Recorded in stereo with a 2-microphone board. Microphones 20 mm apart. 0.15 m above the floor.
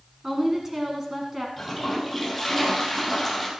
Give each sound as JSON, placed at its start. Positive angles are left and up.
{"t": 0.2, "sound": "a woman speaking", "side_deg": -25, "distance_m": 1.6}
{"t": 1.6, "sound": "a toilet flushing", "side_deg": 0, "distance_m": 3.0}